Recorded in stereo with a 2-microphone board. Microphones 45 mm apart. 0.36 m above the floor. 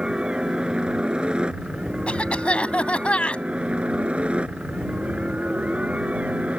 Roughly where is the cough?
Left.